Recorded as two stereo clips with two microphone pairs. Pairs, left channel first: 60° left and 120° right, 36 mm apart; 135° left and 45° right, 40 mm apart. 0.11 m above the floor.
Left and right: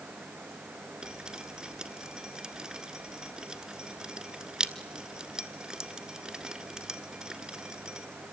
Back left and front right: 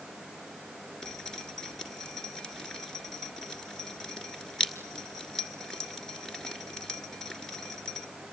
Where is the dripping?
165° right, 1.6 m.